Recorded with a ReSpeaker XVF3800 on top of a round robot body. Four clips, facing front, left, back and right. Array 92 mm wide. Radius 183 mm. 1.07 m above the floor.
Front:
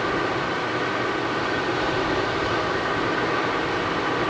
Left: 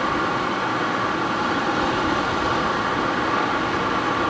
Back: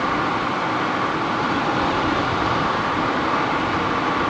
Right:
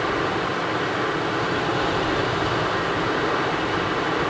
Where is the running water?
160° left, 6 m.